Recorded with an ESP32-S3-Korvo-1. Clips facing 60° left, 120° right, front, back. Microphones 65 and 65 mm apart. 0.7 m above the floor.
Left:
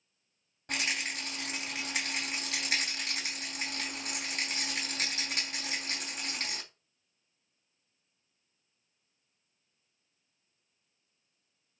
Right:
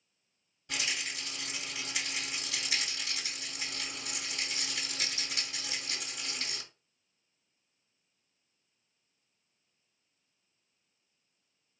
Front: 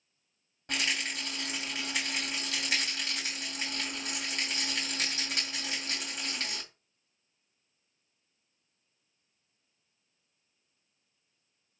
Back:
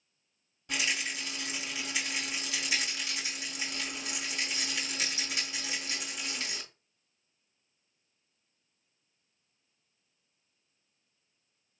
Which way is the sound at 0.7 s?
35° left.